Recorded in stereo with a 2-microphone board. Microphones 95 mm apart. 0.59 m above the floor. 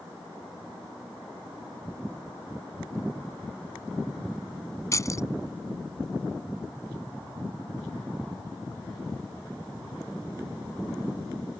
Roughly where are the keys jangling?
Left.